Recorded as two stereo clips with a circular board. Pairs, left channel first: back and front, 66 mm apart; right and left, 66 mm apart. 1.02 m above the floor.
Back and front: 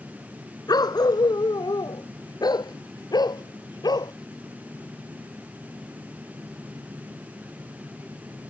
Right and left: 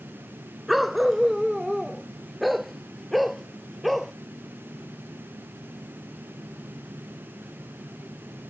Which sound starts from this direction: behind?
A dog barking, at 0.7 s.